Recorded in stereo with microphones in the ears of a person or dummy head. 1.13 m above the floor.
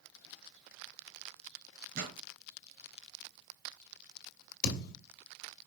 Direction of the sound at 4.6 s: 60° left (ahead or behind).